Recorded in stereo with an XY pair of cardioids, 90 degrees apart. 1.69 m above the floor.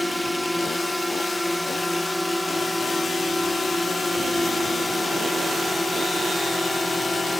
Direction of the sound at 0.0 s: Straight ahead.